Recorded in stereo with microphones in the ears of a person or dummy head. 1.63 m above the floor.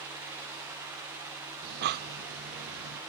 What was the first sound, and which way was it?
Breathing, 55° right (ahead or behind).